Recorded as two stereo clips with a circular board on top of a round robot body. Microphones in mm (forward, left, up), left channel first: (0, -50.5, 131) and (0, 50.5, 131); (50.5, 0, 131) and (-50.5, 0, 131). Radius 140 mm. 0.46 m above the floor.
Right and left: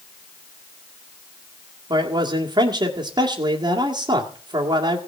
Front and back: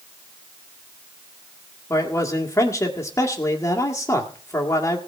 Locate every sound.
1.9 s a man speaking: 55° left, 2 m